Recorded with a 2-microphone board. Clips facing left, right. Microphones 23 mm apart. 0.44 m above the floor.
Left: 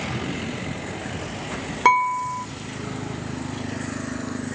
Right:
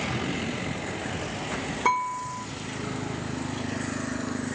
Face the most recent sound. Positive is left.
turn(degrees=50)  # may be behind; listen again after turning